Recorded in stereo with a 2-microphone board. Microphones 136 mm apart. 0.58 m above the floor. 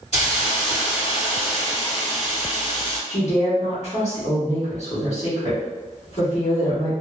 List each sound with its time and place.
0.1 s a hiss: 50° left (ahead or behind), 2.0 m
3.1 s a woman speaking: 55° left (ahead or behind), 1.7 m